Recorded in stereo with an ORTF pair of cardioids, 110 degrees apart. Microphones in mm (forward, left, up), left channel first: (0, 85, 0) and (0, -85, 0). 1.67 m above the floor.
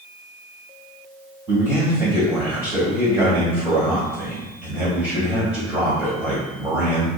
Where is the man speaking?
20° right, 1.4 m.